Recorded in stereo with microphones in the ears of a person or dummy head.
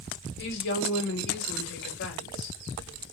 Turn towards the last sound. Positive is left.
turn(degrees=65)  # may be behind; listen again after turning